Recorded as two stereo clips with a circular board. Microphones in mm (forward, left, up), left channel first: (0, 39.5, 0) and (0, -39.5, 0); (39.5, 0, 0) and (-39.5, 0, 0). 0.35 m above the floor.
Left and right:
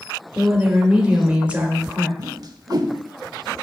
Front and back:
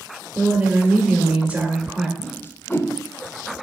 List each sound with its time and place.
0.3 s a woman speaking: 140° right, 1.1 m
2.2 s a whoosh: 55° right, 0.5 m